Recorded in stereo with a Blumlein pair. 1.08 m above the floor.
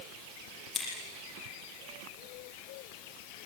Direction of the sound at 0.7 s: 10° left.